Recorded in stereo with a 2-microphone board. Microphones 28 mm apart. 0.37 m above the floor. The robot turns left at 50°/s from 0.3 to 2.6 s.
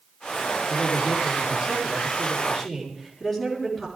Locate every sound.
0.7 s a man speaking: 95° right, 4.5 m; by 3.9 s 170° left, 4.5 m